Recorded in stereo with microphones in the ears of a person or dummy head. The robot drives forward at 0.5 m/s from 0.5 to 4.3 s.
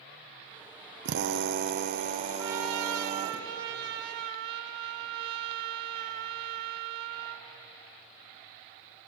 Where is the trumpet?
80° right, 1.0 m; by 7.5 s 45° right (ahead or behind), 1.4 m.